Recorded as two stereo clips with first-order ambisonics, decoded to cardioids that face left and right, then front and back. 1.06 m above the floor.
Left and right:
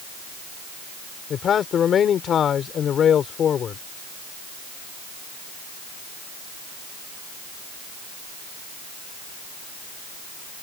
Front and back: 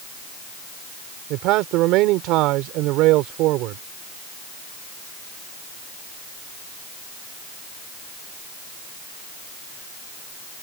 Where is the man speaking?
150° left.